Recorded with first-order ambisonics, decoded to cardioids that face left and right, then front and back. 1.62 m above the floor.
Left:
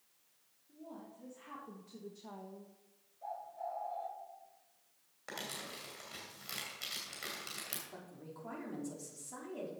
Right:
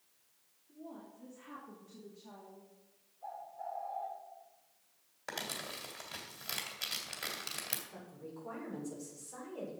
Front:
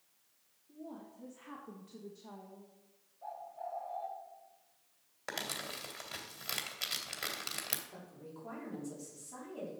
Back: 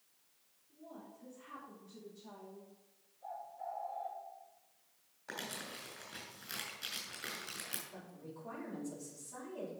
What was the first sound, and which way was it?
A woman speaking, 20° left.